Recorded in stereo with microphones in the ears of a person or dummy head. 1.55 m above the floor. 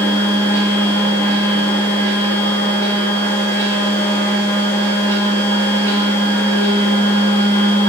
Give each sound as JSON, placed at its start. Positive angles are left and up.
{"t": 0.0, "sound": "a machine running", "side_deg": 15, "distance_m": 0.9}